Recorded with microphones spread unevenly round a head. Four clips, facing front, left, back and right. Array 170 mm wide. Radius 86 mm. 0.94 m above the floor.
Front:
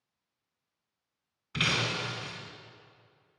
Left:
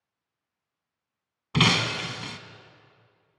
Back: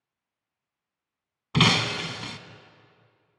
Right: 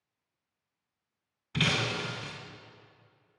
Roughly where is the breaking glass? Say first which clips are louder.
Left 6 dB, back 8 dB; behind left.